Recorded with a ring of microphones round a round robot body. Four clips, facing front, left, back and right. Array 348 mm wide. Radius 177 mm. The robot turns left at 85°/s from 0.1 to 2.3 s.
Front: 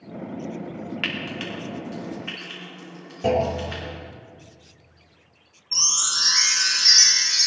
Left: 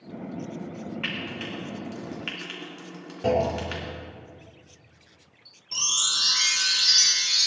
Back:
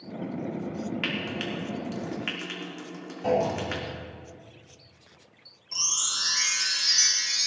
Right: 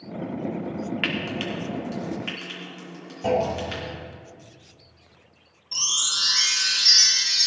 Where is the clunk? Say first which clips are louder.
Right 1 dB, front 3 dB; 40° left, 3 m.